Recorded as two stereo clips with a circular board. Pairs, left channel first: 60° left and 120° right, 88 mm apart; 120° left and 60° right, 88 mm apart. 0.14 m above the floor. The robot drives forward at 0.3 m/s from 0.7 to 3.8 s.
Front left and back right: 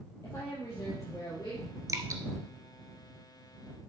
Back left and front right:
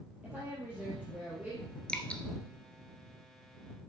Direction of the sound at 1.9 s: 165° right.